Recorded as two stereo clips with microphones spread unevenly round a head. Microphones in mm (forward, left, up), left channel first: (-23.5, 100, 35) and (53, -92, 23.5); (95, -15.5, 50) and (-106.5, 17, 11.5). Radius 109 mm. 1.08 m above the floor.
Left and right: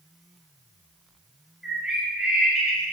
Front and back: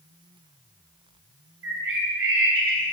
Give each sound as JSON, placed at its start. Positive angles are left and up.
{"t": 1.6, "sound": "a bird", "azimuth_deg": -155, "distance_m": 4.0}